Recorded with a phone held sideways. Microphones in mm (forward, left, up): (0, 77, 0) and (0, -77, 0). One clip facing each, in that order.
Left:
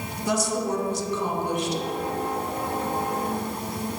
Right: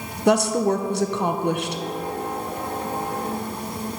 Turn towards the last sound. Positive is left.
turn(degrees=-65)  # may be behind; listen again after turning